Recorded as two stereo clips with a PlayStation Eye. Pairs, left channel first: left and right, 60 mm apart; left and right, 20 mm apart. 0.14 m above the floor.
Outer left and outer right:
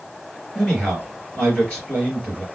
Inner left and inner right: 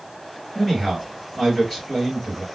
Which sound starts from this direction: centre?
A man speaking, at 0.6 s.